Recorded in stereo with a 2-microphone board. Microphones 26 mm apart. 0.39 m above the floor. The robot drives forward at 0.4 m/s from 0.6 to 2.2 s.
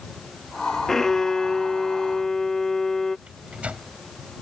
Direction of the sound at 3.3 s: 60° right (ahead or behind).